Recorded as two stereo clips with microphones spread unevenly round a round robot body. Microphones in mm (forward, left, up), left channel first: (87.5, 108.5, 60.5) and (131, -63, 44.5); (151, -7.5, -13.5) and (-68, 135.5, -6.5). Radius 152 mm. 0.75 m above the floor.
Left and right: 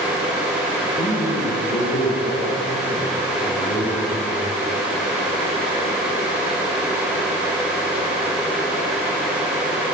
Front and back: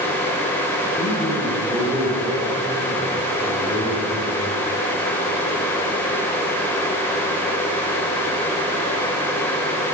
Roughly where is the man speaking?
Ahead left.